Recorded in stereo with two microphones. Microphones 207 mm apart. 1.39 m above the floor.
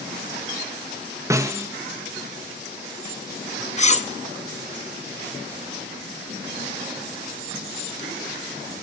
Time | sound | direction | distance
1.3 | a snare drum | 15° right (ahead or behind) | 0.5 m
3.8 | cutlery clinking | 35° left (ahead or behind) | 0.5 m